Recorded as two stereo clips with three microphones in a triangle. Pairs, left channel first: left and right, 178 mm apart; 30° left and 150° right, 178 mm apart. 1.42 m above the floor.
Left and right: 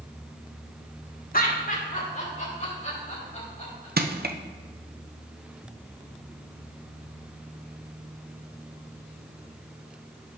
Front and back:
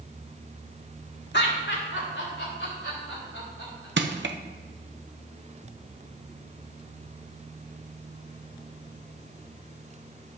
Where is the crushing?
130° right, 0.7 m.